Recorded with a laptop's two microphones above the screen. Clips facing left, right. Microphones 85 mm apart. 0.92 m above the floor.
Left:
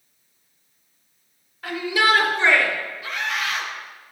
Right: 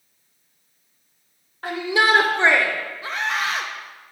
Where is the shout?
50° right (ahead or behind), 3.5 m; by 2.7 s 55° right (ahead or behind), 2.5 m.